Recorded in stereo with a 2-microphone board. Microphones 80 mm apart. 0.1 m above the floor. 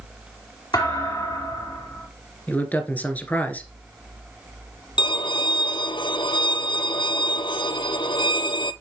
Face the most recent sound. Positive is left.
turn(degrees=70)  # may be behind; listen again after turning